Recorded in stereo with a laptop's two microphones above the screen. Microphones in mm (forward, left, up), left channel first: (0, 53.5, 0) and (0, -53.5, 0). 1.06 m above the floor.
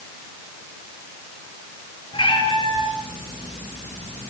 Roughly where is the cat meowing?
Left.